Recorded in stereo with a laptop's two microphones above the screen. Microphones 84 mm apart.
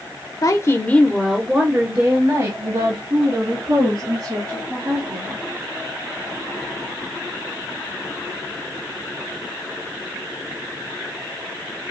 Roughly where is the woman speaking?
Left.